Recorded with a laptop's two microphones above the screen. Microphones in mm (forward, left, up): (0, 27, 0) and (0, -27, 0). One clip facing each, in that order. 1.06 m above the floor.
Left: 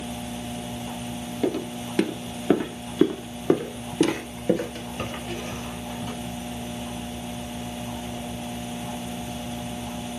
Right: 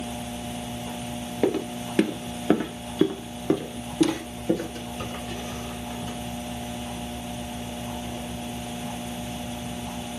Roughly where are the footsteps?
Right.